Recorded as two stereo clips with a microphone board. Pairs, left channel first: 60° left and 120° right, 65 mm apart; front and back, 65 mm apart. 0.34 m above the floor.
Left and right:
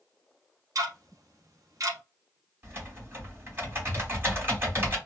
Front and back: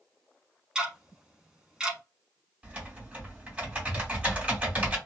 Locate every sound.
0.8 s ticking: 100° right, 0.9 m
2.6 s typing on a keyboard: 120° right, 1.8 m